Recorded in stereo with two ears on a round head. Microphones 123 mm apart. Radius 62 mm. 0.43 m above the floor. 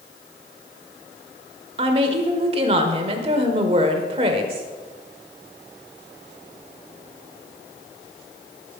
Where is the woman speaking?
45° right (ahead or behind), 1.5 m.